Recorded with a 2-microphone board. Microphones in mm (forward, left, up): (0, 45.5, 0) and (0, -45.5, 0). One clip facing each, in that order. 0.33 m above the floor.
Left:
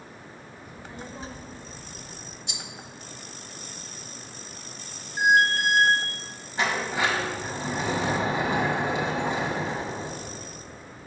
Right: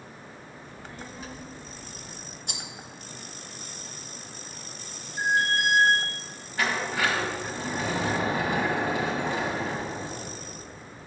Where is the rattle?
50° right (ahead or behind), 0.9 m.